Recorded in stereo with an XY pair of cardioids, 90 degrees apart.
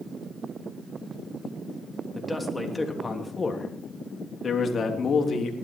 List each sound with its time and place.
2.1 s a man speaking: 5° left, 3 m; by 5.5 s 55° left, 3 m